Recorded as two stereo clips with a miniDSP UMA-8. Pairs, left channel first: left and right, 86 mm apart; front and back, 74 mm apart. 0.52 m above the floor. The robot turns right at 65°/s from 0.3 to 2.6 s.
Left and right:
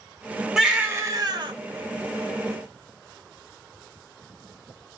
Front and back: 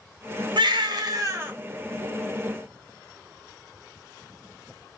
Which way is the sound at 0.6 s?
175° right.